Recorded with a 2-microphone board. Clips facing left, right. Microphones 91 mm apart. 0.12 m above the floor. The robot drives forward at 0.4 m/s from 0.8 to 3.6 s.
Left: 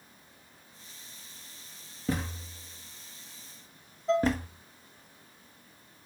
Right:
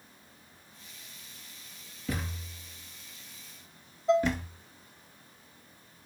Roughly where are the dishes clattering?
Centre.